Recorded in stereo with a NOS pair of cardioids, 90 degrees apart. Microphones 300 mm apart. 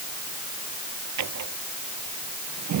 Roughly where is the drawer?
Right.